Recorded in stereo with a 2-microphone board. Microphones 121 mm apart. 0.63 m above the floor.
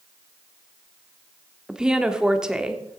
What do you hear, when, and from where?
1.7 s a woman speaking: 5° right (ahead or behind), 1.0 m